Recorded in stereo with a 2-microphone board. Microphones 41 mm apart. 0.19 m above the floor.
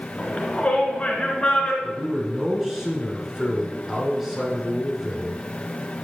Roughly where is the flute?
I don't hear a flute.